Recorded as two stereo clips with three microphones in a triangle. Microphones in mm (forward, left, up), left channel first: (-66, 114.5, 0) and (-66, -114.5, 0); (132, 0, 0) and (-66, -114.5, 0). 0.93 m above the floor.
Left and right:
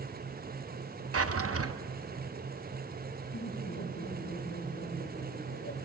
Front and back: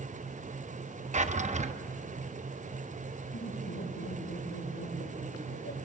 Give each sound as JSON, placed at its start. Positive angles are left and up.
{"t": 1.1, "sound": "a drawer", "azimuth_deg": -90, "distance_m": 0.8}
{"t": 3.3, "sound": "laughter", "azimuth_deg": 60, "distance_m": 4.0}